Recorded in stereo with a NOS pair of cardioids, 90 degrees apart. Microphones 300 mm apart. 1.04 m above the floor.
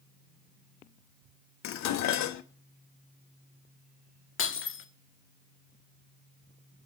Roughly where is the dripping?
No dripping in this recording.